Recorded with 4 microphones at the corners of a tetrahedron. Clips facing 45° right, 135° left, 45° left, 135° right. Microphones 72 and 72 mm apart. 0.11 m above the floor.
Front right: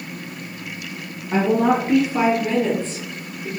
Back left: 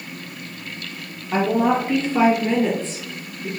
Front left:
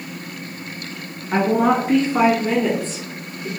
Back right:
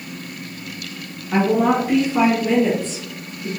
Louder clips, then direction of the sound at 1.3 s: Front right 1 dB, even; straight ahead.